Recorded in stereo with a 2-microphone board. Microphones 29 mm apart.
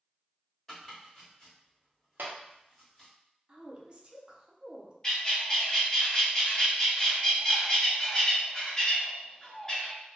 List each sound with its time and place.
0.7 s chopping: 15° left (ahead or behind), 1.3 m
2.2 s a clap: 85° right, 0.6 m
3.5 s a woman speaking: 35° right (ahead or behind), 0.5 m
5.0 s a bird: 20° left (ahead or behind), 0.8 m